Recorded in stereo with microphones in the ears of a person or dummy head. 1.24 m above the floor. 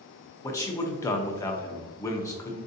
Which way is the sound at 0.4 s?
20° left (ahead or behind).